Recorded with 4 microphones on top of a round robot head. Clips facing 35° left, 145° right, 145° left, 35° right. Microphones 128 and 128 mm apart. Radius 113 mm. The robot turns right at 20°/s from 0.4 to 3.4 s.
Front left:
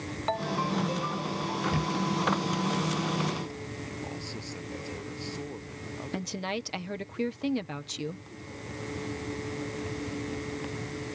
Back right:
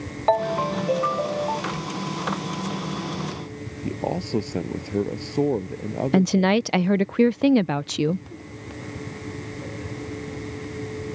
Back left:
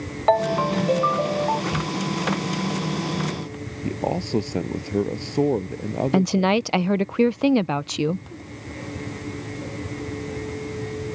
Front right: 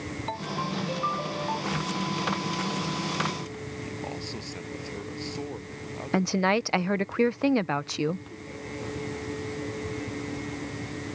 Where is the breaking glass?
I don't hear breaking glass.